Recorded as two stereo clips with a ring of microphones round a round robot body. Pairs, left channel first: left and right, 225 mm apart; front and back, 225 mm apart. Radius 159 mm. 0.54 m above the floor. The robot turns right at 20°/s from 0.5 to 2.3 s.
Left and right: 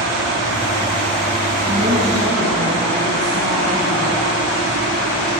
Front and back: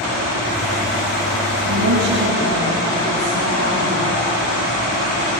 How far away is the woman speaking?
About 7 m.